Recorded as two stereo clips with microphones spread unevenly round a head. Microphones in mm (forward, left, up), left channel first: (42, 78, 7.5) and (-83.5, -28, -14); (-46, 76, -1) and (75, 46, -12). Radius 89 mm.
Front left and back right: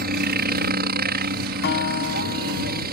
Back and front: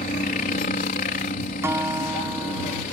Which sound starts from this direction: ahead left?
A guitar, at 1.6 s.